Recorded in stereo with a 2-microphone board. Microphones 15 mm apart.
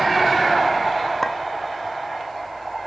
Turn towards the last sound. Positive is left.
turn(degrees=30)  # may be behind; listen again after turning